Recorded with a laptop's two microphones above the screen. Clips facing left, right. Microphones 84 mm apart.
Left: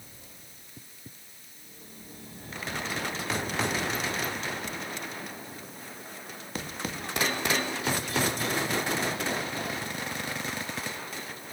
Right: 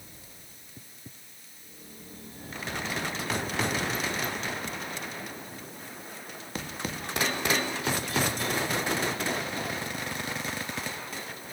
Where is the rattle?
I don't hear a rattle.